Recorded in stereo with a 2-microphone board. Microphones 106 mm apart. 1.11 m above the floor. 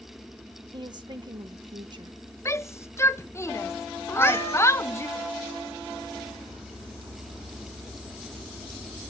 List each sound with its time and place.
0.7 s a woman speaking: 45° right (ahead or behind), 1.2 m
2.5 s a shout: 25° left (ahead or behind), 0.6 m
4.1 s a cat meowing: 20° left (ahead or behind), 1.6 m